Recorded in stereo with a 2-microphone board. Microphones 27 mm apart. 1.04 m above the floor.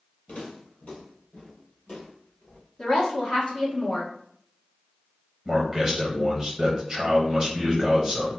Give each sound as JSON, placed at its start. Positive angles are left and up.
{"t": 0.3, "sound": "footsteps", "side_deg": 50, "distance_m": 1.5}
{"t": 2.8, "sound": "a woman speaking", "side_deg": 40, "distance_m": 1.2}
{"t": 5.5, "sound": "a man speaking", "side_deg": -10, "distance_m": 0.8}